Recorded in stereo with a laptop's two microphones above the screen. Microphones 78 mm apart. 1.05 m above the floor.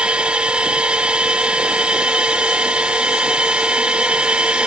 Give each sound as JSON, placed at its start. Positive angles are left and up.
{"t": 0.0, "sound": "a machine running", "side_deg": -15}